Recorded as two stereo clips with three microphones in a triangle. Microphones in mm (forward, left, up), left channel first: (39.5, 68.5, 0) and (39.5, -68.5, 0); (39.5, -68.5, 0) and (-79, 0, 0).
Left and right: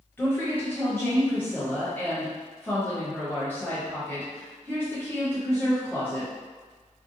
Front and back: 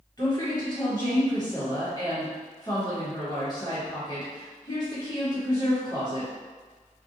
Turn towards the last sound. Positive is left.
turn(degrees=20)